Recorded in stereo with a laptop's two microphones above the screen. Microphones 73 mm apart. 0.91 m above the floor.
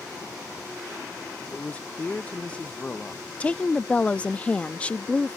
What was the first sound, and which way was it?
A man speaking, 20° left (ahead or behind).